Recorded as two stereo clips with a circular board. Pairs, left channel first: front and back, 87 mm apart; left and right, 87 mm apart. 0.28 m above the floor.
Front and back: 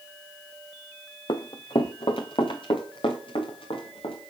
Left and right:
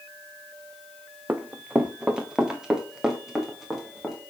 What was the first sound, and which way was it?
Running footsteps, 20° right.